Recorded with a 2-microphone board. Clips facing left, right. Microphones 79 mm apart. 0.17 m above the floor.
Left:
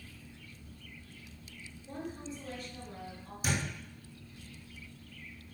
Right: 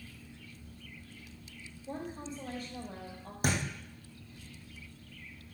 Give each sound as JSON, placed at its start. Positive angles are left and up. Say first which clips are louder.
{"t": 1.9, "sound": "a woman speaking", "louder": "right 1 dB", "side_deg": -45, "distance_m": 6.0}
{"t": 3.4, "sound": "a thud", "louder": "right 2 dB", "side_deg": -55, "distance_m": 4.5}